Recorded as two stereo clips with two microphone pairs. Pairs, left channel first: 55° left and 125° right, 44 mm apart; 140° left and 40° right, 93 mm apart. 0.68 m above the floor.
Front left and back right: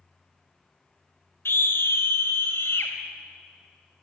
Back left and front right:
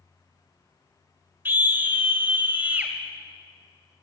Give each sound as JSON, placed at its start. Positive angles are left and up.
{"t": 1.4, "sound": "a scream", "azimuth_deg": 25, "distance_m": 3.0}